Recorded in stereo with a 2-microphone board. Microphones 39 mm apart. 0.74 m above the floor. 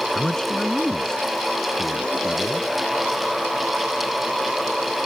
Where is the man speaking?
20° left (ahead or behind); by 2.7 s 15° left (ahead or behind).